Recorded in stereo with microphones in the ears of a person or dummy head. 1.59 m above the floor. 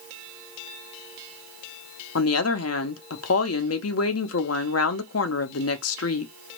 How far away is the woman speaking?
About 0.8 m.